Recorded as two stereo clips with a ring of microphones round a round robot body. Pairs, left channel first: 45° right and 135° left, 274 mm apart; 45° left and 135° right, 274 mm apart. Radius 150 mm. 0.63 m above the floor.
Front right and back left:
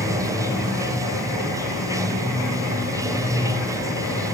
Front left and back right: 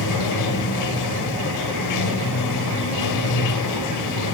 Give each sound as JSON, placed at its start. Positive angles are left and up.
{"t": 0.0, "sound": "running water", "azimuth_deg": 55, "distance_m": 2.5}